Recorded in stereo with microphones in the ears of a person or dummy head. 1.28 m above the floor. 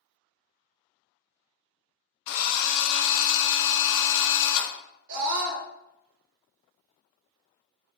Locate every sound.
2.3 s a drill: 75° left (ahead or behind), 1.1 m
5.1 s a scream: 65° right (ahead or behind), 2 m